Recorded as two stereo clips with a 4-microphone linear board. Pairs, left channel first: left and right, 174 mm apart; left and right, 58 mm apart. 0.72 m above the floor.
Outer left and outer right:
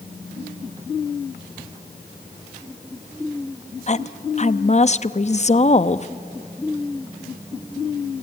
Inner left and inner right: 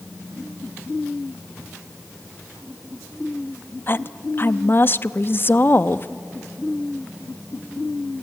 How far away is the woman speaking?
About 0.6 m.